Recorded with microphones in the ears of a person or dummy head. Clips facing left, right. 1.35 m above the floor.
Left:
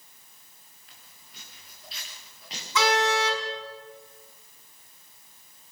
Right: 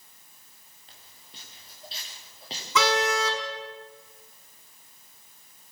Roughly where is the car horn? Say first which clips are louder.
Left 1 dB; right.